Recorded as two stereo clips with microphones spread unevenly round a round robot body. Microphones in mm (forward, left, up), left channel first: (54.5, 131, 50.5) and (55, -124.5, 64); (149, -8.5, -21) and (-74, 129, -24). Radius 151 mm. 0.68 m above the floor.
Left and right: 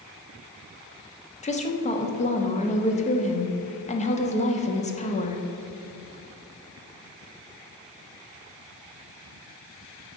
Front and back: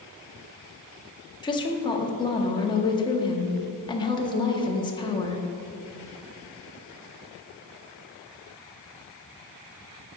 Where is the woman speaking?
35° left, 1.0 m.